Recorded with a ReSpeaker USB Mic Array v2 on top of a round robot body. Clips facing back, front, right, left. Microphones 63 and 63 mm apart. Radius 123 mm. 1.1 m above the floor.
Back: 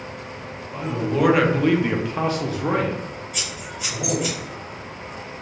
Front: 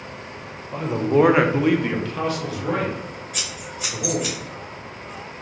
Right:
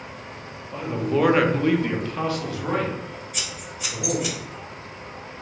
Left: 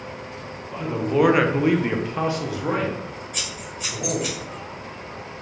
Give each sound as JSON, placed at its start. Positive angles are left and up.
{"t": 0.7, "sound": "a man speaking", "azimuth_deg": 0, "distance_m": 0.7}
{"t": 3.3, "sound": "scissors", "azimuth_deg": 50, "distance_m": 0.8}